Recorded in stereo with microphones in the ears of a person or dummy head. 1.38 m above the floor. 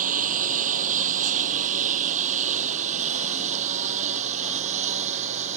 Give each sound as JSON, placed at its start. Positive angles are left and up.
{"t": 0.0, "sound": "a lawn mower", "side_deg": -45}